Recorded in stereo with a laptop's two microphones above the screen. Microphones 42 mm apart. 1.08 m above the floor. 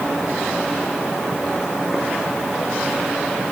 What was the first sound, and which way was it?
Only background noise.